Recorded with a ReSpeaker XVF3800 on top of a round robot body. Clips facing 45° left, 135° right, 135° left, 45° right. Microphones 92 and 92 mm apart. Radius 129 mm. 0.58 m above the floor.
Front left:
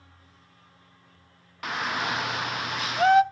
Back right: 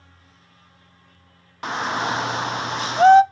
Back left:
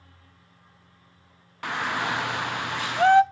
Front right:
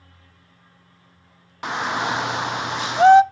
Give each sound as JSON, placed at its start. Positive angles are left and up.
{"t": 1.6, "sound": "a shout", "azimuth_deg": -100, "distance_m": 0.7}